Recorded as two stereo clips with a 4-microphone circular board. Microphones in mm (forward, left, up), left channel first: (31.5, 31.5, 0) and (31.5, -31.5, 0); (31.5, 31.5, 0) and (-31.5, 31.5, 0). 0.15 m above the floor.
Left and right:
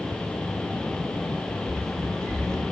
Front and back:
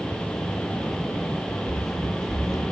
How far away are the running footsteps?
About 2.5 m.